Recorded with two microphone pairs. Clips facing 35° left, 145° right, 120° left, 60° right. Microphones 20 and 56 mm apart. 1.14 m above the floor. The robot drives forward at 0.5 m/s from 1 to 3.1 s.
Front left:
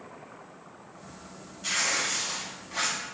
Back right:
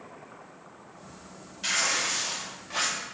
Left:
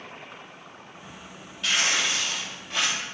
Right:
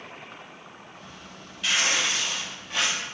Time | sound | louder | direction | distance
1.6 | tearing paper | back right 1 dB, even | 150° right | 3.5 m